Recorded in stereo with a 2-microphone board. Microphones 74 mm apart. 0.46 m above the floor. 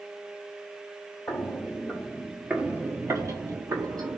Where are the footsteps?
30° left (ahead or behind), 0.8 m; by 4.2 s 70° right (ahead or behind), 1.0 m.